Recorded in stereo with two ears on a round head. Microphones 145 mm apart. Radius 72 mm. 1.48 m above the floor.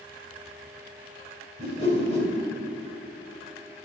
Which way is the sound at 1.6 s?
40° left (ahead or behind).